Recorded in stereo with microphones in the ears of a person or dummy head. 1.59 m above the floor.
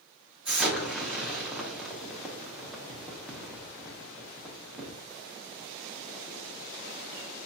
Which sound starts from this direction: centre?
An explosion, at 0.5 s.